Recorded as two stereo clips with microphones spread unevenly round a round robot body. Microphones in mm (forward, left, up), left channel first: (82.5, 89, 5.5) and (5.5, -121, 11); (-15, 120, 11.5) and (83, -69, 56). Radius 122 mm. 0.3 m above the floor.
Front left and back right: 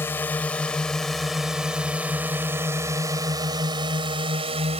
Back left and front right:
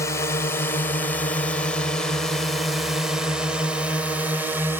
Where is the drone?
140° left; by 4.8 s 155° right.